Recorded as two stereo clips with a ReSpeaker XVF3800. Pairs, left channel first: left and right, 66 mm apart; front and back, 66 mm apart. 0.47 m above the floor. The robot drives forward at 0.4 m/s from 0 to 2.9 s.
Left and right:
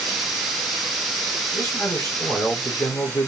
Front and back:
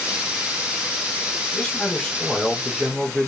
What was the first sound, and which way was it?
A man speaking, 70° left.